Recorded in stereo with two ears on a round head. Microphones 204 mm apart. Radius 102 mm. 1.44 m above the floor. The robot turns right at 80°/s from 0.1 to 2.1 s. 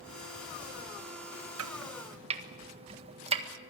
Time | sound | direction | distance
1.6 | chopping | 65° right (ahead or behind) | 1.6 m